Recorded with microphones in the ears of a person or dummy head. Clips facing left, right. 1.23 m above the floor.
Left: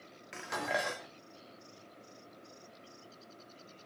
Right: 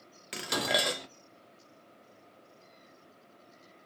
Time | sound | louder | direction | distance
0.3 | dishes clattering | right 4 dB | 45° right (ahead or behind) | 0.6 m